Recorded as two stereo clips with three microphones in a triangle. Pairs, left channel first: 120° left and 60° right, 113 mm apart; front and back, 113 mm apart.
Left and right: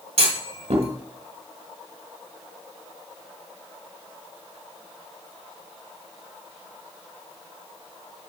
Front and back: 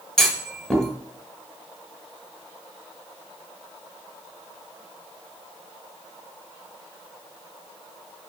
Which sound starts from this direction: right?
A clunk, at 0.2 s.